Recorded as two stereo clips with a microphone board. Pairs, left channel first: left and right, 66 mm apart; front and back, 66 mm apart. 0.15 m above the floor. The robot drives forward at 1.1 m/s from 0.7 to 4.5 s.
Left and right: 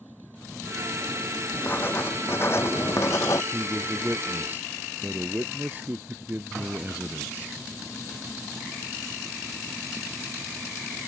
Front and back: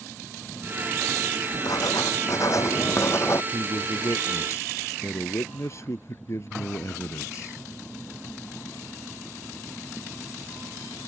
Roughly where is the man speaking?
Ahead right.